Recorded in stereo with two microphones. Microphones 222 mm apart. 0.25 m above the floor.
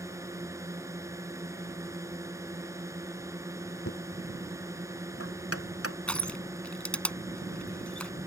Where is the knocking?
85° left.